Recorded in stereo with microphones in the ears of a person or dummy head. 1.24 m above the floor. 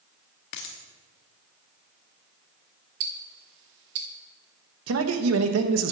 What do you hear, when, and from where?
0.5 s a dropped coin: 55° left (ahead or behind), 1.0 m
3.0 s ticking: 60° right (ahead or behind), 1.3 m
4.9 s a man speaking: 75° right (ahead or behind), 1.0 m